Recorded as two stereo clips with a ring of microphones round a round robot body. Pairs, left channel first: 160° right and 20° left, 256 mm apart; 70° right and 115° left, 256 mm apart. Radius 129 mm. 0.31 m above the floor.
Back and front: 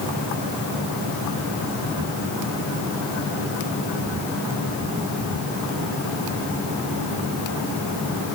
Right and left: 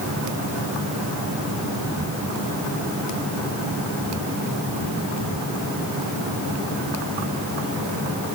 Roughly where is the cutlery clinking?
No cutlery clinking in this recording.